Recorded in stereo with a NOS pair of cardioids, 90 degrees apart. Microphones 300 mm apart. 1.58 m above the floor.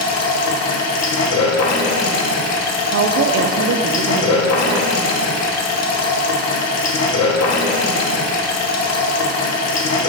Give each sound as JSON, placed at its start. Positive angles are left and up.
{"t": 0.0, "sound": "running water", "azimuth_deg": 60, "distance_m": 0.9}
{"t": 2.9, "sound": "a woman speaking", "azimuth_deg": -50, "distance_m": 0.6}